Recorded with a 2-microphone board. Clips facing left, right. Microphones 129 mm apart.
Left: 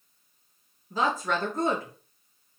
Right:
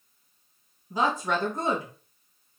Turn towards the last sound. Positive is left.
turn(degrees=-15)  # may be behind; listen again after turning